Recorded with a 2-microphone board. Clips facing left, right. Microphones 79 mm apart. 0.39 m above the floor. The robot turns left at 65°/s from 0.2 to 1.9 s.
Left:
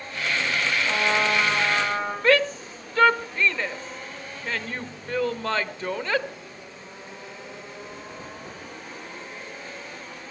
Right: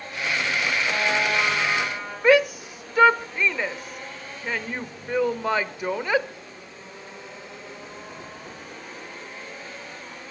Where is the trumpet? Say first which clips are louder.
Left 2 dB; 175° left, 9.5 m; by 2.1 s 105° left, 9.5 m.